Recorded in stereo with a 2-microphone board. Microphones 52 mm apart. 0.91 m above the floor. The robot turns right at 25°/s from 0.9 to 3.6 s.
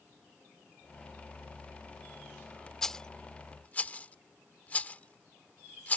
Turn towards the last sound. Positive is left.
turn(degrees=25)  # may be behind; listen again after turning